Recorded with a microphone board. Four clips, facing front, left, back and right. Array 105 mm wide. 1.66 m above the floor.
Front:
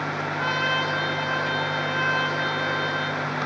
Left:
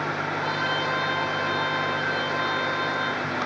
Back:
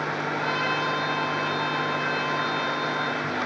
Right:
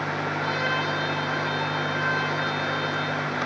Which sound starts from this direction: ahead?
A trumpet, at 0.4 s.